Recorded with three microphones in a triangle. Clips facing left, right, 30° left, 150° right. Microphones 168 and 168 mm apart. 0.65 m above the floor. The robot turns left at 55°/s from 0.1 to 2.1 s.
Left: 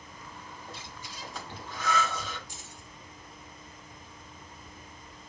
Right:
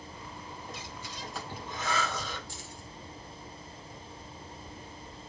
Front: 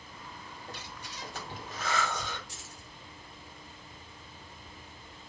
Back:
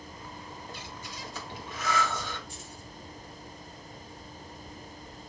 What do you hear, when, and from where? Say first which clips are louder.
0.7 s breathing: right 2 dB, back 2 dB; 35° left, 2 m; by 2.4 s 45° right, 2 m
2.5 s keys jangling: right 3 dB, back 5 dB; 20° left, 1.2 m